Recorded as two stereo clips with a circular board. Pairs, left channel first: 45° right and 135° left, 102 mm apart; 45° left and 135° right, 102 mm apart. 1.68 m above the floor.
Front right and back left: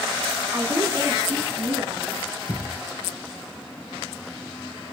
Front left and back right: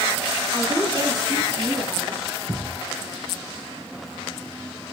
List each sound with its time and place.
0.5 s a woman speaking: 165° right, 4.5 m; by 2.2 s 165° left, 4 m
2.5 s a thud: 90° right, 4.5 m